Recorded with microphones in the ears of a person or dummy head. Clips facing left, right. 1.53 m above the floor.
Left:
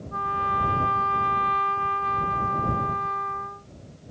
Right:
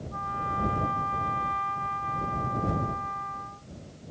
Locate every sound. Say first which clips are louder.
0.1 s a trumpet: left 6 dB; 85° left